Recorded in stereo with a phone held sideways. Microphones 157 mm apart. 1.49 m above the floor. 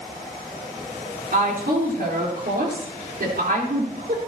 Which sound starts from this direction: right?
A woman speaking, at 1.3 s.